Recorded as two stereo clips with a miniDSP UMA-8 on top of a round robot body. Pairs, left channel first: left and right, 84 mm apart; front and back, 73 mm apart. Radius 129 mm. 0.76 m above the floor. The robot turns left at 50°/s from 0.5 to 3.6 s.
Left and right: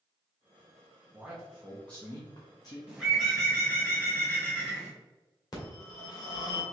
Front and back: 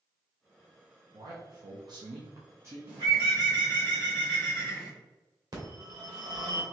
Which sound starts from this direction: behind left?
A phone ringing, at 5.5 s.